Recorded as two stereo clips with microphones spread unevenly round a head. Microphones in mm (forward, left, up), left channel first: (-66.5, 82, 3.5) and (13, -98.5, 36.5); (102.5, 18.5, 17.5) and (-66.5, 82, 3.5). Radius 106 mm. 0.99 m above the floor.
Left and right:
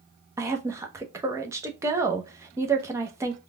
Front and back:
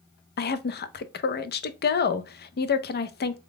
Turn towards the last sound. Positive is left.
turn(degrees=15)